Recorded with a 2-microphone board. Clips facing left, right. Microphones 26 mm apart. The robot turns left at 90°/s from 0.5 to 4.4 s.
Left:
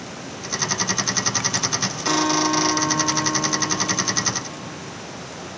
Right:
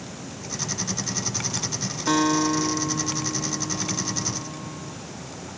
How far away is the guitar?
About 0.7 m.